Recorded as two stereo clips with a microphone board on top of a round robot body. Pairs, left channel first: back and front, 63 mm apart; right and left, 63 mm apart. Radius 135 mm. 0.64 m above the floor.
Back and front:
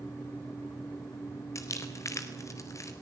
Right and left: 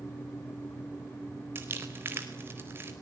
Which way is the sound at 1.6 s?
145° left.